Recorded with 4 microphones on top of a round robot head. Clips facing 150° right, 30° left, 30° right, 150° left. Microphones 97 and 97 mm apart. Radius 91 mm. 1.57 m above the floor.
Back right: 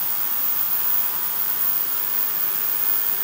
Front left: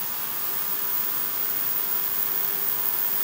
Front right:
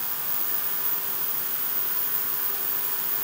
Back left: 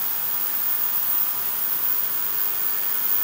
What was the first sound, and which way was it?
Only background noise.